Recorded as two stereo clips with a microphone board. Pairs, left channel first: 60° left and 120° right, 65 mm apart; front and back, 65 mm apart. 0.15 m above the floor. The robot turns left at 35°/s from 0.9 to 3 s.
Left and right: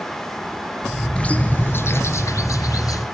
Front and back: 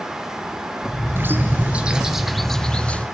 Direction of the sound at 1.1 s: 130° left.